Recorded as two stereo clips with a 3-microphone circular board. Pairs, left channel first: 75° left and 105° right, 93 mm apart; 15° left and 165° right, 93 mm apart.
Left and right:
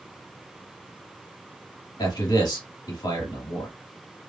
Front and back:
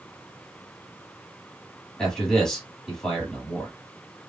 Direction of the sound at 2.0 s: 100° left.